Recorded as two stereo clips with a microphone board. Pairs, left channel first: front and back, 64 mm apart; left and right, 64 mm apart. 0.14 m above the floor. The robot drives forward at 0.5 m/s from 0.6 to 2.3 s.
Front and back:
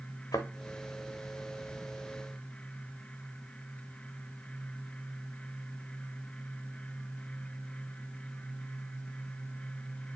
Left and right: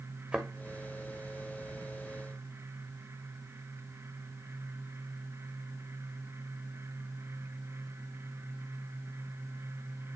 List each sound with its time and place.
0.3 s a thud: 20° right, 1.2 m